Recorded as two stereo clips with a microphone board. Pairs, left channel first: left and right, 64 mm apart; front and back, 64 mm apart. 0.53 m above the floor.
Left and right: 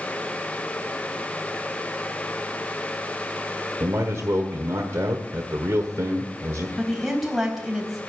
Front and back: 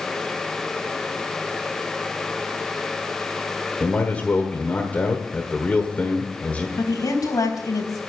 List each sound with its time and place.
3.8 s a man speaking: 60° right, 1.4 m
6.8 s a woman speaking: 5° right, 4 m